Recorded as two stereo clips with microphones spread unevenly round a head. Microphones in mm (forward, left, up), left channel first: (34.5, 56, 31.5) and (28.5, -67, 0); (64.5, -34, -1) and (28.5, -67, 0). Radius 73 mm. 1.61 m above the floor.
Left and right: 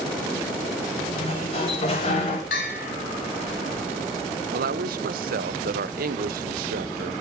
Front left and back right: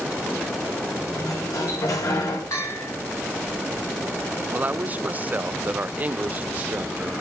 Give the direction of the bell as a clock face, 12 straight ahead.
9 o'clock.